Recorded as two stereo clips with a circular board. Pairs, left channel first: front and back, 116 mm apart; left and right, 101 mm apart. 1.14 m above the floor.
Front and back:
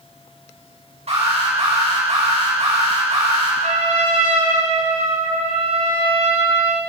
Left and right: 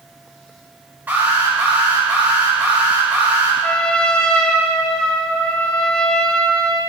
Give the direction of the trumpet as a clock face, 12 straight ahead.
6 o'clock.